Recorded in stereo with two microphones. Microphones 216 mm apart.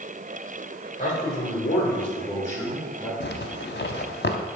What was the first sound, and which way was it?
A man speaking, 40° left (ahead or behind).